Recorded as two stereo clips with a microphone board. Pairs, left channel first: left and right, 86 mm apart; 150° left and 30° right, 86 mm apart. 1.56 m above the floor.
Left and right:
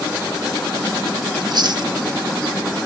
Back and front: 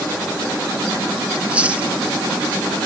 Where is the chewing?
105° right.